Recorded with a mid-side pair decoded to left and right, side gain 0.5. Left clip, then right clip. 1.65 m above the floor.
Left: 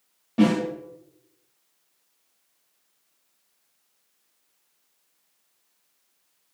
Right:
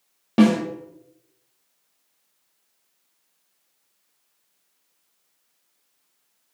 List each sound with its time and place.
0.4 s a snare drum: 65° right, 0.6 m